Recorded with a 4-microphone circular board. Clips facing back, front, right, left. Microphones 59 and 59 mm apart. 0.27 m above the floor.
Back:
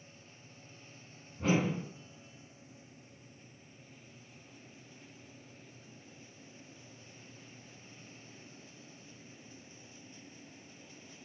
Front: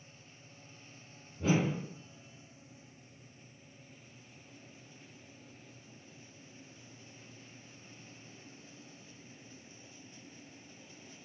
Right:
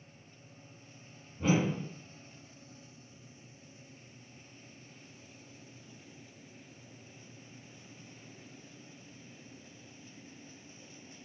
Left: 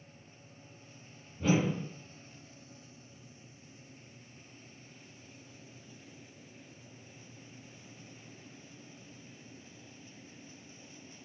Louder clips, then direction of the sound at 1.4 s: Even, even; 155° right.